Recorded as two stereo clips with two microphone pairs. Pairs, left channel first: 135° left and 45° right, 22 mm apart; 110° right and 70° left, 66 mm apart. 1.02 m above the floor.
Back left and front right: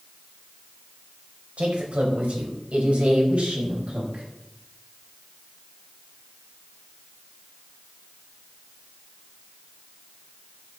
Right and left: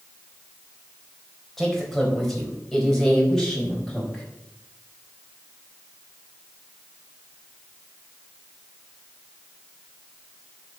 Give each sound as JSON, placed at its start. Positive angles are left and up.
{"t": 1.6, "sound": "a man speaking", "azimuth_deg": -25, "distance_m": 4.5}